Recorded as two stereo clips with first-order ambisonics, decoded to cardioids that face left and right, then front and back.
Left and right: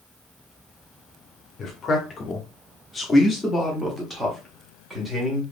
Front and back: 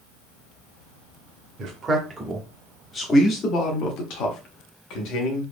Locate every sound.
1.6 s a man speaking: 140° left, 1.0 m; by 5.4 s 10° right, 1.7 m